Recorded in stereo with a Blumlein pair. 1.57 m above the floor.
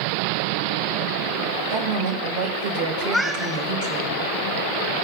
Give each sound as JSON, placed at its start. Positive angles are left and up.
{"t": 1.7, "sound": "a woman speaking", "azimuth_deg": -50, "distance_m": 2.5}
{"t": 3.0, "sound": "a cat meowing", "azimuth_deg": 5, "distance_m": 3.0}